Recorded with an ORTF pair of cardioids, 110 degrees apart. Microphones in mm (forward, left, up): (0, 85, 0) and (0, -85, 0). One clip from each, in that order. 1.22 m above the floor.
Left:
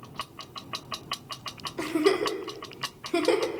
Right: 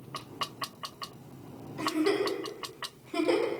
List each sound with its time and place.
1.8 s a giggle: 40° left, 0.8 m